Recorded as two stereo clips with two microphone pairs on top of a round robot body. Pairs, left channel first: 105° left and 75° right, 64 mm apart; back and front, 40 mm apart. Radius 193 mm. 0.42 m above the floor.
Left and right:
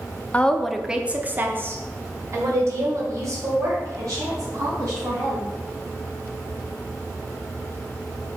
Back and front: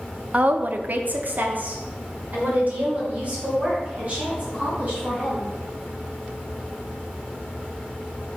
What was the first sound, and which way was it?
A woman speaking, 30° left.